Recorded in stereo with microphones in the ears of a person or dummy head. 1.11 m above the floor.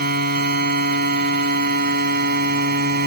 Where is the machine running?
55° right (ahead or behind).